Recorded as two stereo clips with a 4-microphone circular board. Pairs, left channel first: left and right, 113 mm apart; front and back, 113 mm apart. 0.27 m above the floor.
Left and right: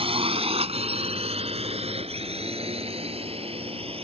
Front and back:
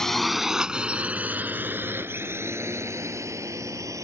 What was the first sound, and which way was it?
A drone, 85° right.